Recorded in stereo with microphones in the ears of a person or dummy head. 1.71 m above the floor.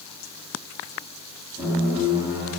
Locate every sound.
1.6 s a squeak: 10° right (ahead or behind), 1.2 m